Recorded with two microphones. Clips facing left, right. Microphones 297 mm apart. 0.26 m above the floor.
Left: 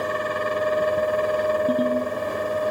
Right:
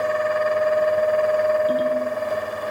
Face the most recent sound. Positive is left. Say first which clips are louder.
# even
turn(degrees=60)  # may be behind; listen again after turning